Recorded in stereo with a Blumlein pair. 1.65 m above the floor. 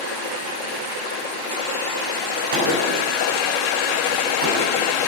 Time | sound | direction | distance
2.5 | a gunshot | 55° right | 7 m